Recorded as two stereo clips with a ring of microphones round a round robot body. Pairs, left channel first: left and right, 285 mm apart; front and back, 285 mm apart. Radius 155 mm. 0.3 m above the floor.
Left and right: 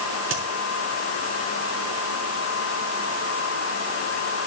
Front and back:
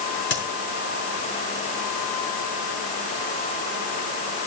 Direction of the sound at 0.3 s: 45° right.